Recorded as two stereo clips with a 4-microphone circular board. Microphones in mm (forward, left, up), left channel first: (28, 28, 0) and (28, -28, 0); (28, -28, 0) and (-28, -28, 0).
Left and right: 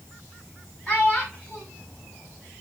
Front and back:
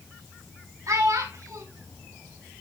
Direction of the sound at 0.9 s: 155° left.